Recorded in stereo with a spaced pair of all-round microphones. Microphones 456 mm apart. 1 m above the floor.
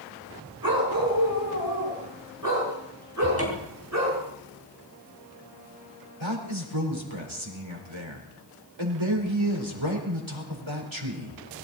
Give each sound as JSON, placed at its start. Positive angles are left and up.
{"t": 0.6, "sound": "a dog barking", "side_deg": -50, "distance_m": 5.0}
{"t": 3.2, "sound": "a cupboard door", "side_deg": 30, "distance_m": 4.0}
{"t": 6.2, "sound": "a man speaking", "side_deg": -80, "distance_m": 4.5}